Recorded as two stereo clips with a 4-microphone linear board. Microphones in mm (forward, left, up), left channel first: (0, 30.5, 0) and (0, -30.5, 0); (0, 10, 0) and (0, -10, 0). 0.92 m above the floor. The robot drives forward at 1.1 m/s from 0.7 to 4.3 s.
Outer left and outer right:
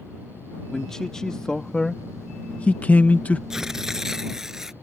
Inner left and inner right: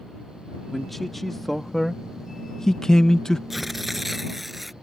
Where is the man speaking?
10° left (ahead or behind); by 3.4 s 25° left (ahead or behind).